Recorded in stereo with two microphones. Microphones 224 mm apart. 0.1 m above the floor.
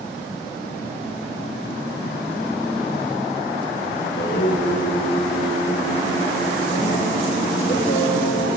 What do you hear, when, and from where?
4.0 s singing: 60° left (ahead or behind), 1.5 m